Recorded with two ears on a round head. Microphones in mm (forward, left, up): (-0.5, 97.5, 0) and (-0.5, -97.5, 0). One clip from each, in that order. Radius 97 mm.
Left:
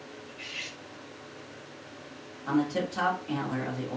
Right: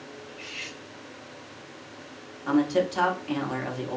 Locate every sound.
0.3 s cutlery clinking: 10° left (ahead or behind), 1.2 m
2.5 s a man speaking: 25° right (ahead or behind), 0.9 m